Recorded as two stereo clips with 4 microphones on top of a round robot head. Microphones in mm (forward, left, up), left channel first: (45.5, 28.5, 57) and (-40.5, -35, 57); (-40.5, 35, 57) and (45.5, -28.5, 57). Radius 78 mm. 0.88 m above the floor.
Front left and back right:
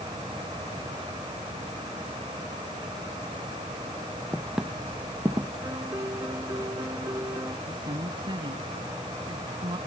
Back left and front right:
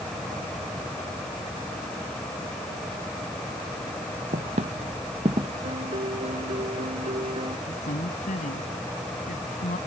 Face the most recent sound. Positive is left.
turn(degrees=160)